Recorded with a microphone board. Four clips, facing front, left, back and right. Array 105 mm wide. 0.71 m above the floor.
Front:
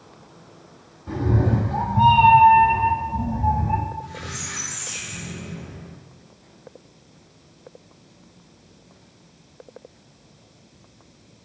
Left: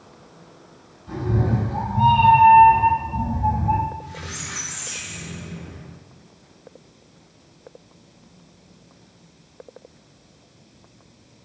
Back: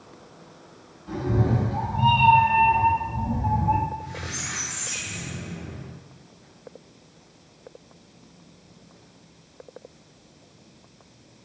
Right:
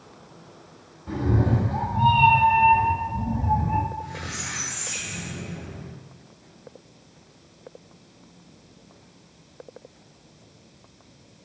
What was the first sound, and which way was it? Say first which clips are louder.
A cat meowing: even, front 2 dB; 40° right.